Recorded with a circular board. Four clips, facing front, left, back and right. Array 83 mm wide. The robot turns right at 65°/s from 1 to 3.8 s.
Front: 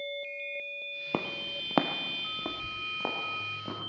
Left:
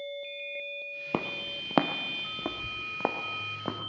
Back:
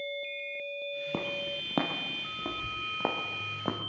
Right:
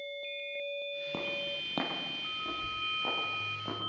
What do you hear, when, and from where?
1.1 s footsteps: 60° left, 1.0 m; by 3.8 s 145° left, 2.5 m